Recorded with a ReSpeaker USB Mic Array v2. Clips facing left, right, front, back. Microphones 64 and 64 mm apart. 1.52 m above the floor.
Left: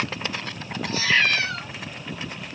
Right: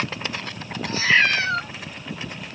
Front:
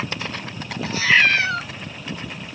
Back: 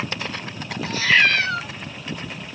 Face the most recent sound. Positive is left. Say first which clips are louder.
# right 3 dB, front 1 dB
turn(degrees=-75)